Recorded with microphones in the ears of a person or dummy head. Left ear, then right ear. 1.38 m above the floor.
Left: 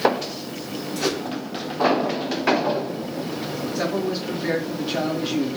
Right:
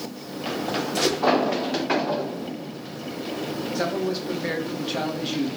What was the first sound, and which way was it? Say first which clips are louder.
A whoosh: even; 65° right (ahead or behind).